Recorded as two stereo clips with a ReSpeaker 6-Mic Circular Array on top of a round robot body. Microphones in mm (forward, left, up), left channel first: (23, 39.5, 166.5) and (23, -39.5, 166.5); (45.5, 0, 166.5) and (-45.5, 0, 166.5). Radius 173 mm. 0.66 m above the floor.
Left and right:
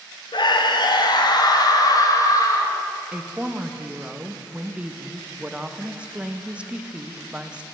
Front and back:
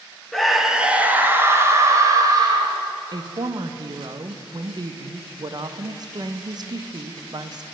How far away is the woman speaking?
About 1.1 m.